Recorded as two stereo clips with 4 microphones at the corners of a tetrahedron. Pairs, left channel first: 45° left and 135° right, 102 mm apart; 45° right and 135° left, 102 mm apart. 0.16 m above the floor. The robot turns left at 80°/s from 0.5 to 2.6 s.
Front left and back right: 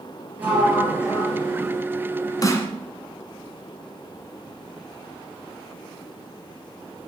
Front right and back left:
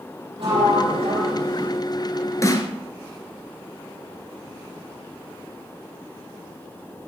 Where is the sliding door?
155° left, 5 m; by 1.8 s 50° left, 5 m.